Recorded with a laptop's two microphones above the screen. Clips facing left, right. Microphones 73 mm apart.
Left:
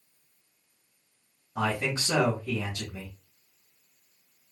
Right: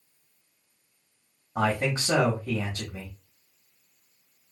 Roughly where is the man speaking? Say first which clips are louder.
Right 3 dB; right.